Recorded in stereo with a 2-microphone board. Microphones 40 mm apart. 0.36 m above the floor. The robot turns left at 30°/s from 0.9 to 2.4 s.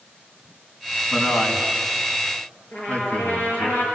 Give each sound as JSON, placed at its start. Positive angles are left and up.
{"t": 1.1, "sound": "a man speaking", "side_deg": 65, "distance_m": 3.5}
{"t": 2.7, "sound": "a trumpet", "side_deg": 60, "distance_m": 7.0}